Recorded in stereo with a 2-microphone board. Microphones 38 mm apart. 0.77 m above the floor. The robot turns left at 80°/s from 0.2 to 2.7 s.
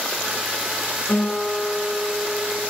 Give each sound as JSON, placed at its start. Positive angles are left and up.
{"t": 1.1, "sound": "a guitar", "azimuth_deg": 40, "distance_m": 9.5}